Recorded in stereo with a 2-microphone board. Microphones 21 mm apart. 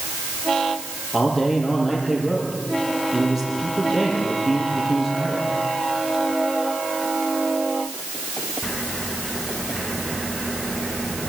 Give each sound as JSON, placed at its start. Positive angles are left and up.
{"t": 1.1, "sound": "a man speaking", "side_deg": -20, "distance_m": 8.5}